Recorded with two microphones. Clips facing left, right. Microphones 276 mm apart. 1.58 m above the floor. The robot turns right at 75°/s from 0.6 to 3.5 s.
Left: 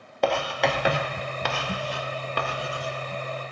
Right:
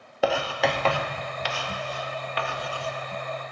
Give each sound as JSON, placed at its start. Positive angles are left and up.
{"t": 0.2, "sound": "writing", "side_deg": -5, "distance_m": 0.8}